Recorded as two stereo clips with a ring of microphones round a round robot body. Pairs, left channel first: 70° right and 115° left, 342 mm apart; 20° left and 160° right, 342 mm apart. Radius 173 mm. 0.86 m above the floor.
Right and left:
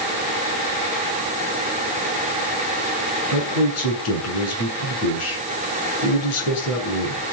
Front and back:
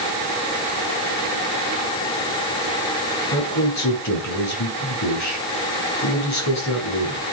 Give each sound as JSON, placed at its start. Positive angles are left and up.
{"t": 3.3, "sound": "a man speaking", "azimuth_deg": -20, "distance_m": 9.0}